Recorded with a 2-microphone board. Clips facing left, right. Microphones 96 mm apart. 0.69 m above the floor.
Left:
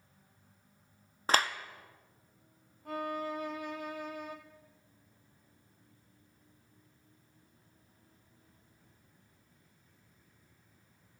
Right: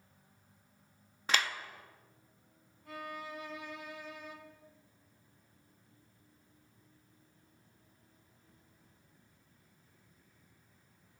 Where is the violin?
55° left (ahead or behind), 1.2 m.